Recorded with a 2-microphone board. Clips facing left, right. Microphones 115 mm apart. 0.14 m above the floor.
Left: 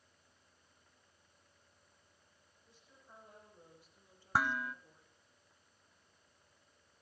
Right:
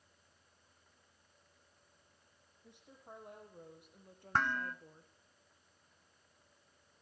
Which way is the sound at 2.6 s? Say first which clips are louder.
Right 8 dB; 65° right (ahead or behind).